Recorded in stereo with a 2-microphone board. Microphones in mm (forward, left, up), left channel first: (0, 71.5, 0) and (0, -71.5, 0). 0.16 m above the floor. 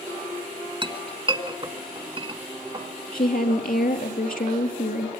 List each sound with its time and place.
0.8 s a clink: 35° right (ahead or behind), 1.2 m
3.1 s a woman speaking: 70° left (ahead or behind), 3.5 m